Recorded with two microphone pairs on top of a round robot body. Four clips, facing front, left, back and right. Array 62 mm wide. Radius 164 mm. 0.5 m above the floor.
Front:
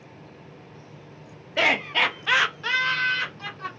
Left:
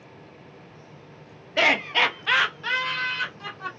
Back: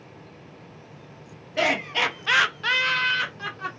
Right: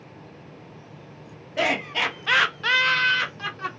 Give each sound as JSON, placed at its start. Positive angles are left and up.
{"t": 1.6, "sound": "laughter", "azimuth_deg": 55, "distance_m": 1.0}